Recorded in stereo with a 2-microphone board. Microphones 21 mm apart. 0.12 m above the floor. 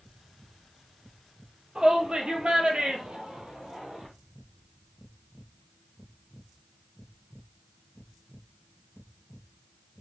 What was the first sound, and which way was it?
A shout, 40° right (ahead or behind).